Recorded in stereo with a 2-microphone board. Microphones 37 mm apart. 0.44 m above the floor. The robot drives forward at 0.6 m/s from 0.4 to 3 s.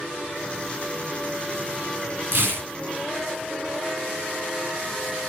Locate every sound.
2.3 s tearing paper: 70° right (ahead or behind), 1.5 m; by 2.7 s 80° right, 1.4 m